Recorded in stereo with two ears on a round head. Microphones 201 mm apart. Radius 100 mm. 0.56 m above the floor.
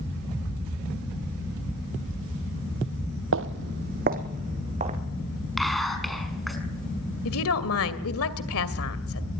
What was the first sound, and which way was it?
Footsteps, 60° right (ahead or behind).